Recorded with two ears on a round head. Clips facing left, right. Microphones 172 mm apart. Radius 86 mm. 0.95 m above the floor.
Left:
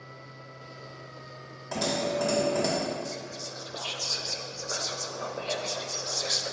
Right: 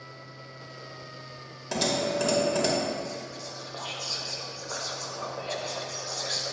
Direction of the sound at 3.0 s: 35° left (ahead or behind).